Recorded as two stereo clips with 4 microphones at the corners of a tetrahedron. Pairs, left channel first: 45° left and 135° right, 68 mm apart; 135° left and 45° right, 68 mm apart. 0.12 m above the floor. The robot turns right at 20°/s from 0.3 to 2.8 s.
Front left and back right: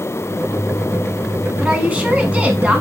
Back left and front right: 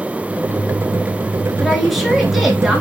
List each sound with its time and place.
1.6 s a woman speaking: 135° right, 1.1 m; by 2.8 s 115° right, 1.1 m